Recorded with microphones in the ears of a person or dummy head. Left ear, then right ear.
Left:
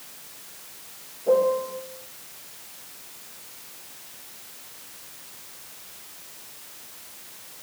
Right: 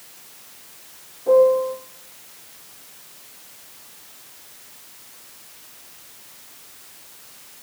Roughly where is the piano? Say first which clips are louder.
Right 6 dB; right.